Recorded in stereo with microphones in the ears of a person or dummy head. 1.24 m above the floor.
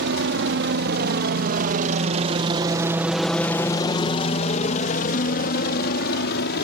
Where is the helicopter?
65° right (ahead or behind); by 6.6 s 60° left (ahead or behind).